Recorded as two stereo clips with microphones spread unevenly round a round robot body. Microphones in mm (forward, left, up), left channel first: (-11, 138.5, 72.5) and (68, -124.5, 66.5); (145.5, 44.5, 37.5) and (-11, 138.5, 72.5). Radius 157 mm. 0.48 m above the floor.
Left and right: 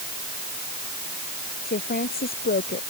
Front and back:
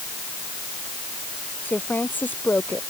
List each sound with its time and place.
1.6 s a woman speaking: 50° left